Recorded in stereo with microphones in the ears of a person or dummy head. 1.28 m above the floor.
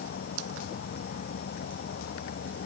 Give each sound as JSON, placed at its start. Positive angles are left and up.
{"t": 0.0, "sound": "an insect", "side_deg": 55}